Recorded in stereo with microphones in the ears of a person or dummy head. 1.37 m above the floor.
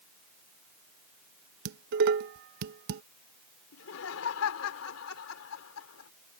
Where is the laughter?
85° left.